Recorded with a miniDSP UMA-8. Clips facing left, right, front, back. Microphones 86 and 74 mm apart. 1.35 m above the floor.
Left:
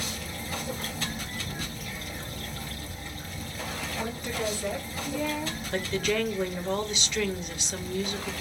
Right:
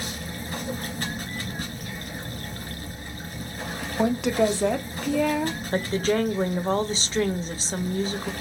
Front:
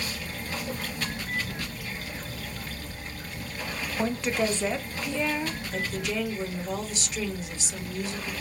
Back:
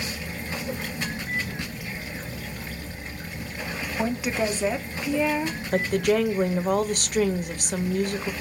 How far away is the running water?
About 2.5 m.